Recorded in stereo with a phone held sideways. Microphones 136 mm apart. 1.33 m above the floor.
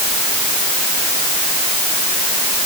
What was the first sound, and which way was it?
Only background noise.